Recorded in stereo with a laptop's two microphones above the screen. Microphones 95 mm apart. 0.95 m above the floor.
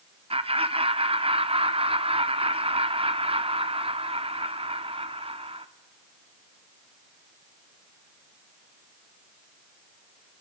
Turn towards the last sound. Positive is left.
turn(degrees=-85)